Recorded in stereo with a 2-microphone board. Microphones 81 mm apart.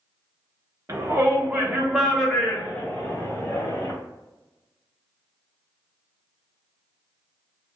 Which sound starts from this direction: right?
A shout, at 0.9 s.